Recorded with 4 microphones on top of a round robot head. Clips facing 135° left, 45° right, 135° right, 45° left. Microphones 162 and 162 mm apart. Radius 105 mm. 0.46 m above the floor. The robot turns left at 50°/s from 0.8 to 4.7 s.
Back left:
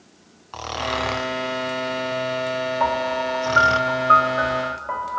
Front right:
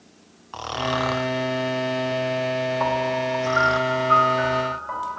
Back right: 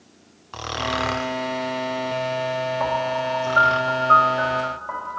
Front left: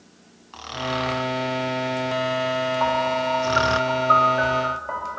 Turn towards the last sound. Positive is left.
turn(degrees=105)